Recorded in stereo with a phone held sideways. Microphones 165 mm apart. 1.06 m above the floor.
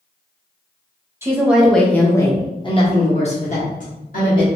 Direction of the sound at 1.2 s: 15° right (ahead or behind).